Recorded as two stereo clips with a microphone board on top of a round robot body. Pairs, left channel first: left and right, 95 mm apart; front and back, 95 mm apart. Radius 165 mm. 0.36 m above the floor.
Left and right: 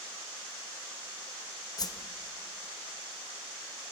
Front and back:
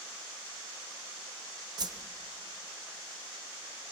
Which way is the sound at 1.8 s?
135° left.